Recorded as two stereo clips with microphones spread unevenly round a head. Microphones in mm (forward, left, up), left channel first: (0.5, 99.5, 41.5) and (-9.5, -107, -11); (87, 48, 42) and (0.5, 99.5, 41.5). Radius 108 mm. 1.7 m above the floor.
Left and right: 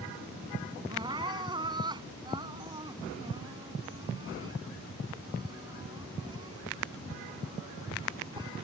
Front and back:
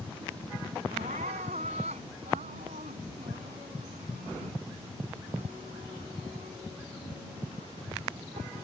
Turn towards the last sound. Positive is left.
turn(degrees=-165)